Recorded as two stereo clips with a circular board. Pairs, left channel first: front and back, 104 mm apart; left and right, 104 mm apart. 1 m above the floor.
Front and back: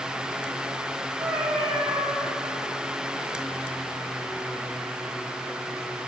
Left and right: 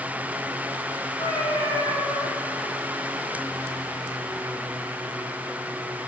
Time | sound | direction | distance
1.2 | a cat meowing | 135° left | 2.5 m